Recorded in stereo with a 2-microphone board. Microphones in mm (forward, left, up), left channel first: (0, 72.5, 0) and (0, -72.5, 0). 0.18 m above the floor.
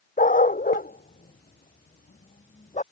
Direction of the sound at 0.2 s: 70° left (ahead or behind).